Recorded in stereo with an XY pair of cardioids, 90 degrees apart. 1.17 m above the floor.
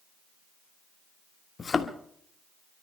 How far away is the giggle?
No giggle in this recording.